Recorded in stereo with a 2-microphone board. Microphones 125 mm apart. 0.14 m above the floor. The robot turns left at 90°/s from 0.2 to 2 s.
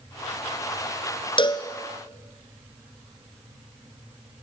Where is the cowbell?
40° left (ahead or behind), 1.7 m; by 1.7 s 25° left (ahead or behind), 1.7 m.